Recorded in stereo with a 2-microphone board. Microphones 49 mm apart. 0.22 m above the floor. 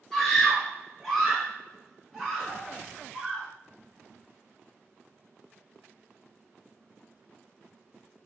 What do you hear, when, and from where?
0.1 s a scream: 5° left (ahead or behind), 1.9 m; by 3.5 s 5° right (ahead or behind), 1.9 m